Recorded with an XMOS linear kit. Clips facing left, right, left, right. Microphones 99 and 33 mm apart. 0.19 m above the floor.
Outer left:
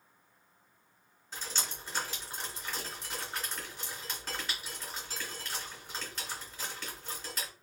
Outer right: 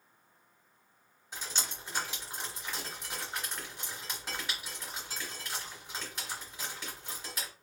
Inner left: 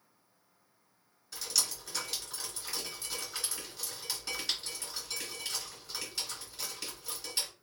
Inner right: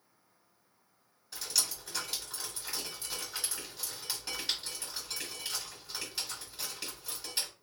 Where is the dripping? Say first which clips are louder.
Even, even; 15° right (ahead or behind), 2 m.